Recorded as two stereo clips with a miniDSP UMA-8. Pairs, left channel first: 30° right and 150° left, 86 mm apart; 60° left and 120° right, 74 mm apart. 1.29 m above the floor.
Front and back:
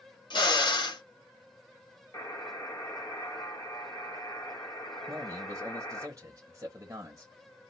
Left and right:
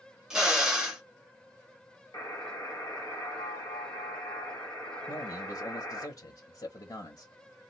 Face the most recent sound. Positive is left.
turn(degrees=95)